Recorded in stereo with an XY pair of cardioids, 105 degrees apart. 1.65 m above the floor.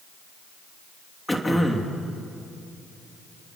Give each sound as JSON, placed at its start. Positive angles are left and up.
{"t": 1.3, "sound": "throat clearing", "azimuth_deg": 10, "distance_m": 3.0}